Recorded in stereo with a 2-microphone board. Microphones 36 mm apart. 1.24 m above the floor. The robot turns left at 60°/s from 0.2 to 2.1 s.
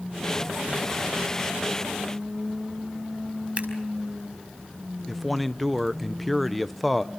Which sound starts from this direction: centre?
A man speaking, at 5.1 s.